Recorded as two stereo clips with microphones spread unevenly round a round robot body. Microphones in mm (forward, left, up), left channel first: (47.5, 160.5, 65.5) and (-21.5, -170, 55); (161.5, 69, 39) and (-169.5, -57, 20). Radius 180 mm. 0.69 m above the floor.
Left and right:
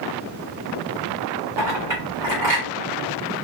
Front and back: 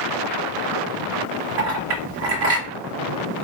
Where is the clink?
175° left, 1.4 m.